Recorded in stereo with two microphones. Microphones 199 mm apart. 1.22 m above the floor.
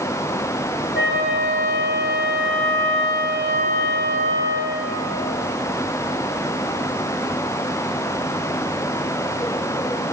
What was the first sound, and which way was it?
A flute, 80° left.